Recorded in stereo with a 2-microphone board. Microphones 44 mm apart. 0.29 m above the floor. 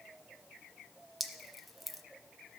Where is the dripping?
Centre (ahead or behind), 0.8 m.